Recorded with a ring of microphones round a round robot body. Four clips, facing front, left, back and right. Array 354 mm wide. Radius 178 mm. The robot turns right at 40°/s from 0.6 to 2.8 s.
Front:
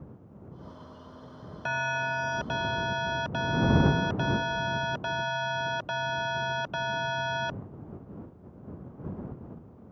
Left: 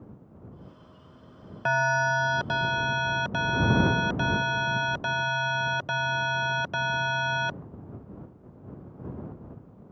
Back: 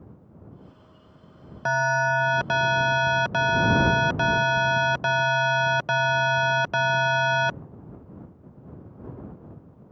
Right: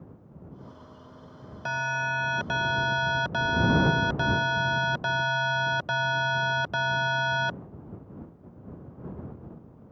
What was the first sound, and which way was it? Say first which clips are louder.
An alarm: left 5 dB, back 8 dB; 140° left.